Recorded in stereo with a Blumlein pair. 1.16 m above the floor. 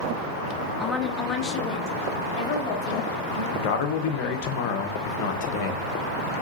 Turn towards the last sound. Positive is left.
turn(degrees=45)